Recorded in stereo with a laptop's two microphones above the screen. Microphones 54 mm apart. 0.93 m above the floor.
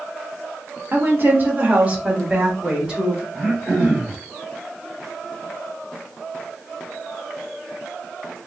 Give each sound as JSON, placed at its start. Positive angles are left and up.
{"t": 0.9, "sound": "a woman speaking", "side_deg": -40, "distance_m": 1.2}
{"t": 3.3, "sound": "throat clearing", "side_deg": -15, "distance_m": 2.0}